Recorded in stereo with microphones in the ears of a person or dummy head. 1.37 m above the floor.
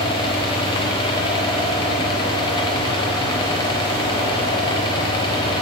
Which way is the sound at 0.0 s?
30° left (ahead or behind).